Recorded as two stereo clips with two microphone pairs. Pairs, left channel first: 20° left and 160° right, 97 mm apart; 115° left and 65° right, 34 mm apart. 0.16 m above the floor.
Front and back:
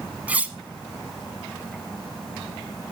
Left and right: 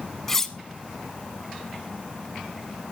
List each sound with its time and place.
0.3 s cutlery clinking: 165° left, 0.6 m